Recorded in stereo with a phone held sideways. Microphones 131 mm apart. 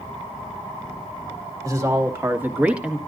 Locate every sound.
1.6 s a woman speaking: 25° right (ahead or behind), 2 m; by 3.0 s 5° right (ahead or behind), 1.4 m